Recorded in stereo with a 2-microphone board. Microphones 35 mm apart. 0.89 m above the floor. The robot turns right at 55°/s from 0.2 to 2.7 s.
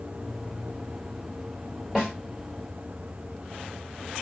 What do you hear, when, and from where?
1.9 s a snare drum: 10° right (ahead or behind), 1.5 m; by 2.1 s centre (ahead or behind), 1.5 m